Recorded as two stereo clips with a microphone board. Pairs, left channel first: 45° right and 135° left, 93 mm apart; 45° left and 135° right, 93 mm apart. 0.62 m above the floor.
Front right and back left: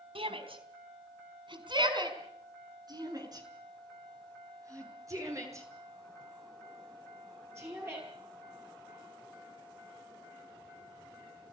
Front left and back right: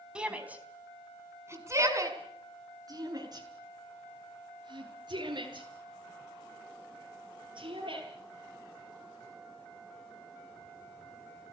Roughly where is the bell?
I don't hear a bell.